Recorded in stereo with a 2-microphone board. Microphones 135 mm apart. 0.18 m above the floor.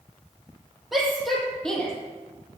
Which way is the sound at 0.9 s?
Centre (ahead or behind).